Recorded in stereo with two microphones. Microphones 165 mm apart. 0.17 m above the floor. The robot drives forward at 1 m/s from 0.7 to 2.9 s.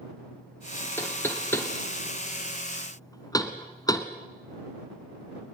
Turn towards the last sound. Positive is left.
turn(degrees=25)  # may be behind; listen again after turning